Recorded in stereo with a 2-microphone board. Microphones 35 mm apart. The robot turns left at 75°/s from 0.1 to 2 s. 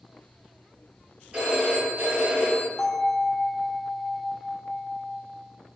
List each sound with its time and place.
1.3 s a phone ringing: 35° right, 1.6 m; by 2.7 s 85° right, 1.6 m
2.8 s a bell: 25° left (ahead or behind), 1.0 m